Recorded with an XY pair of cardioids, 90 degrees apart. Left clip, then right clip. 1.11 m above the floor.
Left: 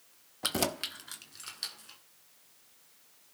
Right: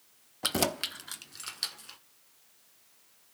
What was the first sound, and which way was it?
Keys jangling, 20° right.